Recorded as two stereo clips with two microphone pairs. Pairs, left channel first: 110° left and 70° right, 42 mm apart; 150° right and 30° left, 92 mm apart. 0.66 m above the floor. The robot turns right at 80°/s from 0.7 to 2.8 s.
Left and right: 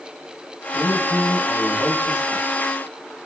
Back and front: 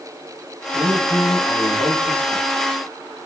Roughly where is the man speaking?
Left.